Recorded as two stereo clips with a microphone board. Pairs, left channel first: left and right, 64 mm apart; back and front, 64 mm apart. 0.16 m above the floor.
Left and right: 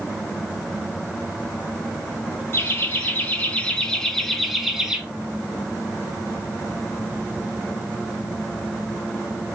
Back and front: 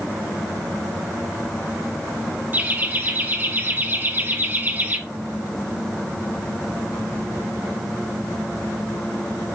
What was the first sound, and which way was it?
Laughter, 45° left.